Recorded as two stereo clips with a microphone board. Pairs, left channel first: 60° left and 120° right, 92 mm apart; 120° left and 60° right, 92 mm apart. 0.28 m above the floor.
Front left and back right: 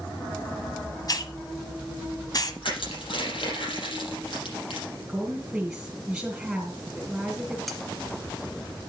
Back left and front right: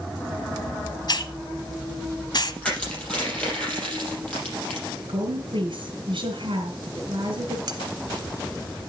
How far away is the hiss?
About 1.0 m.